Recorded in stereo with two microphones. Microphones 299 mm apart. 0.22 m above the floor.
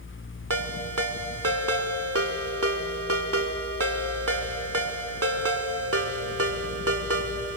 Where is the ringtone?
50° right (ahead or behind), 1.1 m.